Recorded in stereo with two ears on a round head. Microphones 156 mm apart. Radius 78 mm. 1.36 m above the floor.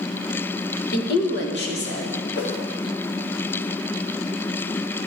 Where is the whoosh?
65° left (ahead or behind), 1.9 m.